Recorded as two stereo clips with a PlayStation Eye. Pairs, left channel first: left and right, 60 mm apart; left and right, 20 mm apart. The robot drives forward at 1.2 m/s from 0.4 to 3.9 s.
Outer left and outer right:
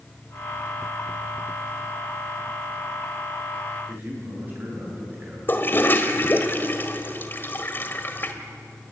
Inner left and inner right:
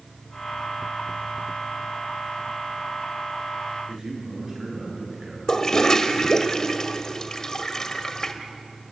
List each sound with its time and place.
3.9 s a man speaking: 30° right (ahead or behind), 8.5 m
5.5 s a toilet flushing: 35° left (ahead or behind), 1.7 m